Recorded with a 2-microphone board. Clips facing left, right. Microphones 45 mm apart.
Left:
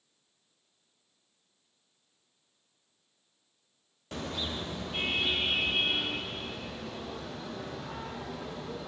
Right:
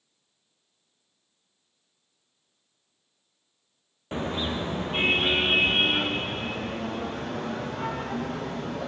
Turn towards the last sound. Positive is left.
turn(degrees=-55)  # may be behind; listen again after turning